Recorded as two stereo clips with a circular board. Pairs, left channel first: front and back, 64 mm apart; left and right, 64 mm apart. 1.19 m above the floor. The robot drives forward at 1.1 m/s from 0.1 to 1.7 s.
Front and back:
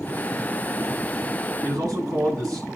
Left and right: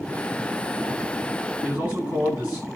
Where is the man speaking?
150° right, 8 m.